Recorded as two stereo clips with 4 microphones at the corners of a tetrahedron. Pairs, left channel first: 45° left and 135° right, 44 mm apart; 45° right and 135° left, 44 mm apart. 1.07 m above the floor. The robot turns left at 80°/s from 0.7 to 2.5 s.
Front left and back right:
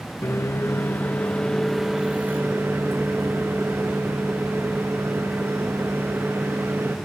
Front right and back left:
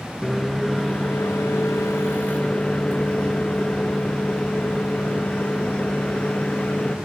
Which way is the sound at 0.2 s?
35° left.